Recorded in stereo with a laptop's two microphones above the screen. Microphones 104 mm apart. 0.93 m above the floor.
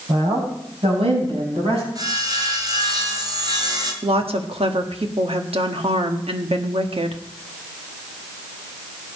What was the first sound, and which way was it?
A woman speaking, 80° right.